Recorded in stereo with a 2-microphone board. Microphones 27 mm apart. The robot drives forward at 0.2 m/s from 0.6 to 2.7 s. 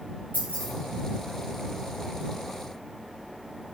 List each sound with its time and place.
0.3 s keys jangling: 65° left (ahead or behind), 1.0 m